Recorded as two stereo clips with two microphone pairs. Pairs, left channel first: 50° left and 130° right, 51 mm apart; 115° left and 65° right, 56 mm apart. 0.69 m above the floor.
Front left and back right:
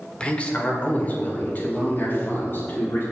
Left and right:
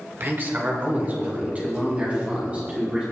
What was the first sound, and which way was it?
A man speaking, 20° right.